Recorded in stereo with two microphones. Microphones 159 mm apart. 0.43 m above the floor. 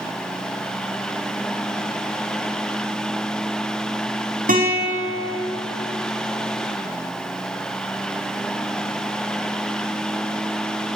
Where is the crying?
No crying in this recording.